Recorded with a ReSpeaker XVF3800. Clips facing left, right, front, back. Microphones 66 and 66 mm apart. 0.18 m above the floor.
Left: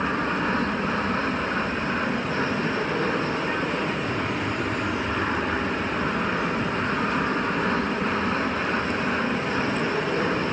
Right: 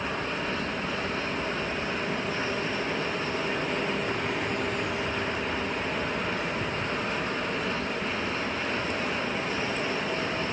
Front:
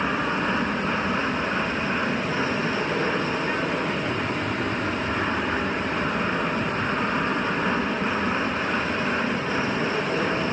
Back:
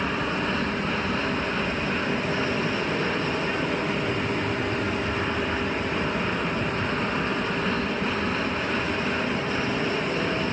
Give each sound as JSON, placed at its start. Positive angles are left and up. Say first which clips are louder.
{"t": 0.0, "sound": "an aircraft", "louder": "left 6 dB, front 2 dB", "azimuth_deg": 60}